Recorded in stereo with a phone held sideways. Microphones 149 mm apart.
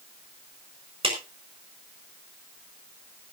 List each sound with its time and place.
1.0 s a clap: 40° right (ahead or behind), 4 m